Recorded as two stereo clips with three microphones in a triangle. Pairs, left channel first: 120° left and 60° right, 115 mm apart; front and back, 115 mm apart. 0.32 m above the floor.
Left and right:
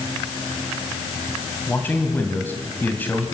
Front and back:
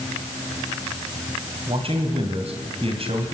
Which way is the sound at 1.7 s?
170° right.